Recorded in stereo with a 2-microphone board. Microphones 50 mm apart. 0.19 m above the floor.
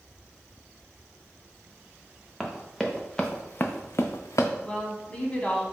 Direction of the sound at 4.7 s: 25° left (ahead or behind).